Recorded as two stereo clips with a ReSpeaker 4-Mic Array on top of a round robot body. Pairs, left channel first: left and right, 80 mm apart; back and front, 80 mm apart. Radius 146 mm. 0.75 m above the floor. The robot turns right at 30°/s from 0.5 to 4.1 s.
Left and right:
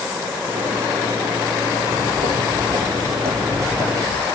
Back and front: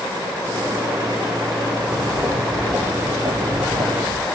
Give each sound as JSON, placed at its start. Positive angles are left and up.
{"t": 1.8, "sound": "footsteps", "azimuth_deg": -90, "distance_m": 8.5}